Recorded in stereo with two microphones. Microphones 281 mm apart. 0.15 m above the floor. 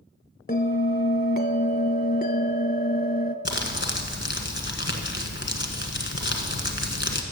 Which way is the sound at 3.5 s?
40° left (ahead or behind).